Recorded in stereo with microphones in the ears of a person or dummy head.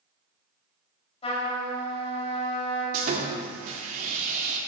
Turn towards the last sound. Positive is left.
turn(degrees=-45)  # may be behind; listen again after turning